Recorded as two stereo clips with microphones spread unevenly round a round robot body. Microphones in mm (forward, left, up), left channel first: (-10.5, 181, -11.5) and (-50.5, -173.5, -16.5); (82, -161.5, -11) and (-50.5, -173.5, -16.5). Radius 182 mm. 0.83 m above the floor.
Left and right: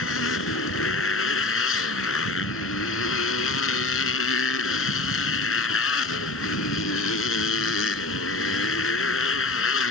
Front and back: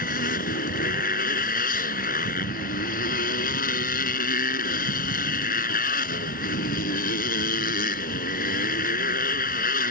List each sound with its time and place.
0.0 s a motorcycle: 25° left